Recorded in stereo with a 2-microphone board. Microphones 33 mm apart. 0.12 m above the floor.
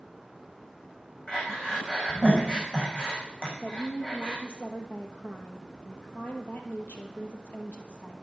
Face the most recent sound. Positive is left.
turn(degrees=65)  # may be behind; listen again after turning